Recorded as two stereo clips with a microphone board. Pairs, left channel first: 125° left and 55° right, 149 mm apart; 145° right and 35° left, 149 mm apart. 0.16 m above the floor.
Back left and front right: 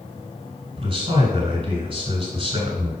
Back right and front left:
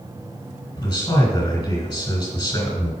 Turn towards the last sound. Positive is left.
turn(degrees=-95)